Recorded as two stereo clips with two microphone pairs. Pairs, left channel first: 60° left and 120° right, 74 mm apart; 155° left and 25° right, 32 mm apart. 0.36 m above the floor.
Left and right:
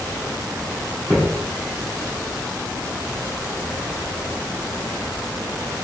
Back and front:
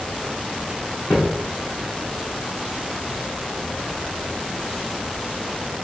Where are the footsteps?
170° right, 1.8 m.